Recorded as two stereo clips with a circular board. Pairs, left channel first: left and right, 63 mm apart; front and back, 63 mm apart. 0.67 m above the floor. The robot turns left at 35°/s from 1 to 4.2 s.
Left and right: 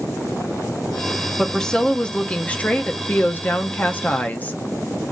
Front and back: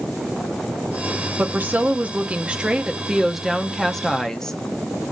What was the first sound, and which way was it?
A woman speaking, 170° left.